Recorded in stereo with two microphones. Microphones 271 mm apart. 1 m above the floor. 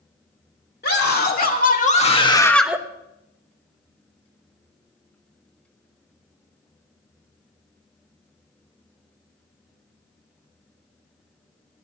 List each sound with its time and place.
0.8 s a scream: 40° left (ahead or behind), 3 m; by 2.8 s 10° right (ahead or behind), 0.9 m